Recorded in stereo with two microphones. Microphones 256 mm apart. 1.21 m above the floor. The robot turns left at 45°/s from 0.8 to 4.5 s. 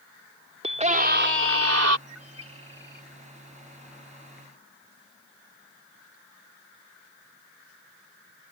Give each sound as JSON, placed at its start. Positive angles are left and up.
{"t": 0.6, "sound": "a scream", "azimuth_deg": -25}
{"t": 2.1, "sound": "a bird", "azimuth_deg": -100}